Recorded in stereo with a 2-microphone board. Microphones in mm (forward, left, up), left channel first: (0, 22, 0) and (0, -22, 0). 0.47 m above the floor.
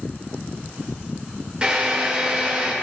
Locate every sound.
1.6 s a drill: 20° right (ahead or behind), 4 m